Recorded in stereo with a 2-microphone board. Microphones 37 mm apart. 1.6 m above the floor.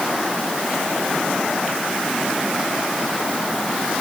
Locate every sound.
Only background noise.